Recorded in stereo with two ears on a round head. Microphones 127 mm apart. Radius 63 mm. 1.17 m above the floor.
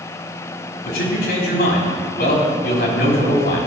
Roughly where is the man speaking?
Left.